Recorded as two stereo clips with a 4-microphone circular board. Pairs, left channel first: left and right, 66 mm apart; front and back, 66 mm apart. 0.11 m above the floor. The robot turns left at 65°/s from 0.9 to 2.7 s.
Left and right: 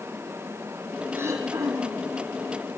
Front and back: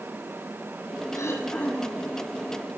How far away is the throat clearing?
About 4.5 m.